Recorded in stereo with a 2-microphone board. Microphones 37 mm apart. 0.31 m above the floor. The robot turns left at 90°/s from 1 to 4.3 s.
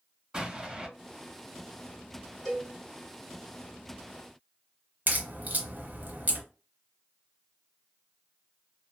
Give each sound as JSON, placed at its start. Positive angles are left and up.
{"t": 0.3, "sound": "an explosion", "side_deg": -20, "distance_m": 1.7}
{"t": 2.5, "sound": "a cowbell", "side_deg": -5, "distance_m": 1.6}
{"t": 5.1, "sound": "a crack", "side_deg": -45, "distance_m": 0.9}